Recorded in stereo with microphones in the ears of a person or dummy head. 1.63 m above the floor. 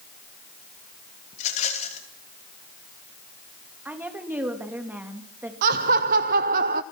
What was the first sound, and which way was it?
A rattle, 40° left (ahead or behind).